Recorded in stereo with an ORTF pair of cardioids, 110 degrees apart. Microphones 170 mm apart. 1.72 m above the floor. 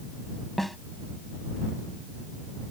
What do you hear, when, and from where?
0.6 s a snare drum: straight ahead